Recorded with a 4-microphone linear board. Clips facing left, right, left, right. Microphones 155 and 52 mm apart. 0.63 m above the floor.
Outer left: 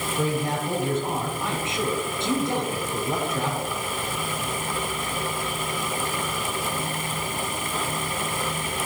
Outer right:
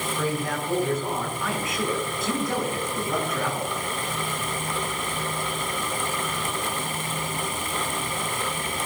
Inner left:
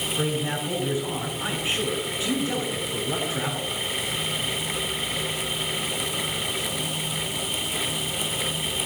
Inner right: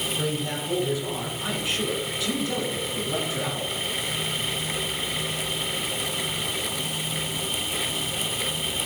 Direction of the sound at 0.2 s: 25° left (ahead or behind).